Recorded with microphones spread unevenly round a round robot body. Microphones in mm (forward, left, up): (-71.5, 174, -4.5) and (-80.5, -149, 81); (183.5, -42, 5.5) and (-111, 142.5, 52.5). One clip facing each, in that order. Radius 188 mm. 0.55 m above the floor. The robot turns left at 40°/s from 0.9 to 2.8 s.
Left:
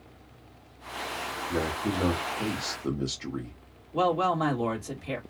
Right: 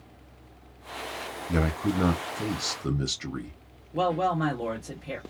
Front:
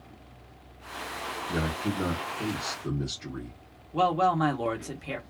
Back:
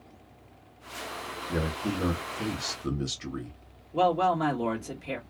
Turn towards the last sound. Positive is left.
turn(degrees=40)